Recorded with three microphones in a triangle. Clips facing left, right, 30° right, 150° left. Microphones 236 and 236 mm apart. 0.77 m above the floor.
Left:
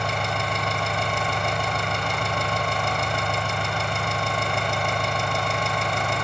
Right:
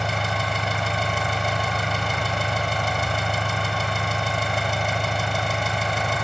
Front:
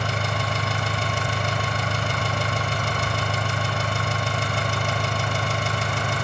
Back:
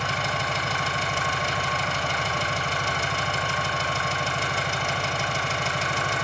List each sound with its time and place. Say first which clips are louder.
0.0 s an engine running: even, front 2 dB; 5° right, 1.4 m